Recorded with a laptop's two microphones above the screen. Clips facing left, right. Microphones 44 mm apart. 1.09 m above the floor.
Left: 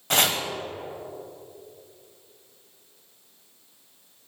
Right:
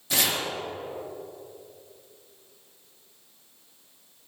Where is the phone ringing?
I don't hear a phone ringing.